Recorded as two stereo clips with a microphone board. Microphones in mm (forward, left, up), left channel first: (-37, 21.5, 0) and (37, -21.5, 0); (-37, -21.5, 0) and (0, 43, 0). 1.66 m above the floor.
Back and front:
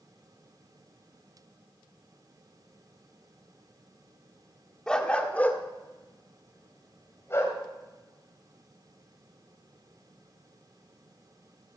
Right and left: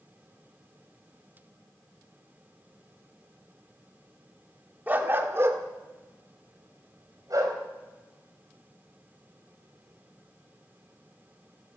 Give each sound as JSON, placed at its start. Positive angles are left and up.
{"t": 4.9, "sound": "a dog barking", "azimuth_deg": 80, "distance_m": 1.3}